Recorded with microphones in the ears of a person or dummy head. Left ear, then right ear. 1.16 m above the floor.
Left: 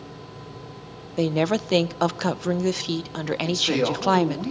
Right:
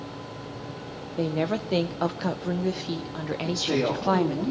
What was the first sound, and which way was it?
A woman speaking, 70° left (ahead or behind).